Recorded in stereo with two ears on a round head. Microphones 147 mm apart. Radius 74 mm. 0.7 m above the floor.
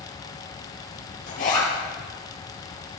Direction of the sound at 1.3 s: 55° left (ahead or behind).